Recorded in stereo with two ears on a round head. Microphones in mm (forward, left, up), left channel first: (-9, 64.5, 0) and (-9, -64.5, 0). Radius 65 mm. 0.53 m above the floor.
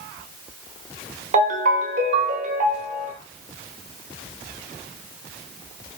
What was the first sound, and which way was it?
A ringtone, 50° right (ahead or behind).